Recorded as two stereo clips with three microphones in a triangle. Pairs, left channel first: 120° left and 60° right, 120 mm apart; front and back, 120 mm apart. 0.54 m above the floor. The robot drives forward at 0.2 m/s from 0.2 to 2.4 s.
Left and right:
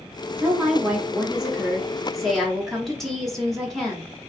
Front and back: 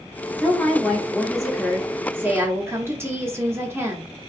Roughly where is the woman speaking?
Ahead right.